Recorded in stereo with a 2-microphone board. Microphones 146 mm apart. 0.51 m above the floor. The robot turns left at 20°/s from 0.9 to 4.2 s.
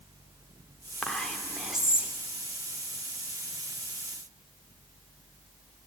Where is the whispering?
5° left (ahead or behind), 1.0 m; by 2.1 s 10° right (ahead or behind), 1.0 m.